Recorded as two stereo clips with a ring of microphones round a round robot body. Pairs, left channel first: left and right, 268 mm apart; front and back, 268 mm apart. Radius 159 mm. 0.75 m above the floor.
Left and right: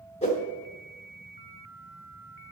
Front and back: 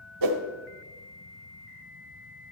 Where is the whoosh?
160° left, 0.7 m.